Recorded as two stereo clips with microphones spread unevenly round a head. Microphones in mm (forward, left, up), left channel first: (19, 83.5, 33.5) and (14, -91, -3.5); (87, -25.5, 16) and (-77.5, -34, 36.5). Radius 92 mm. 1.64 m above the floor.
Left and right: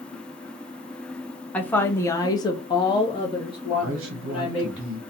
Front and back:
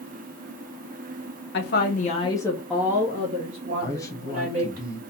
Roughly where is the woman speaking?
Ahead.